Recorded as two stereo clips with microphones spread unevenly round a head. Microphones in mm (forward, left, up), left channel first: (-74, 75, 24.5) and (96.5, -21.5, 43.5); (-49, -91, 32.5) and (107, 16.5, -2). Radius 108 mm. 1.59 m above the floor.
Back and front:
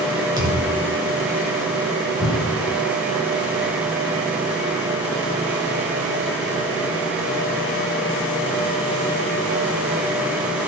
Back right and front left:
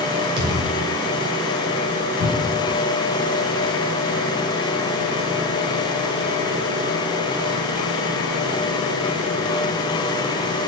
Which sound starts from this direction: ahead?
A thud, at 0.4 s.